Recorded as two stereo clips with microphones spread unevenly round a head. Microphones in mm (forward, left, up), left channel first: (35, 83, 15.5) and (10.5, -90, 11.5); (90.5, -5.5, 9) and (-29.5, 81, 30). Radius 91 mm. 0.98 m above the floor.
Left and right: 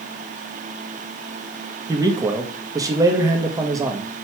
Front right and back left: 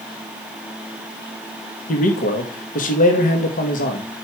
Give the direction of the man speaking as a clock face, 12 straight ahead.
1 o'clock.